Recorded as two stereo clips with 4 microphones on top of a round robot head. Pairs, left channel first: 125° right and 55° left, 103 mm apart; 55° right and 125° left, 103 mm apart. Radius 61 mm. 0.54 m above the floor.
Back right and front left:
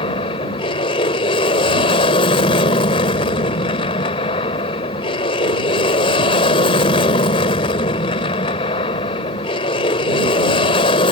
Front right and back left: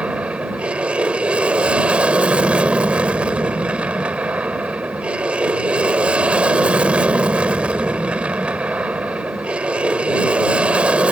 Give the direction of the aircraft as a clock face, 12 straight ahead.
5 o'clock.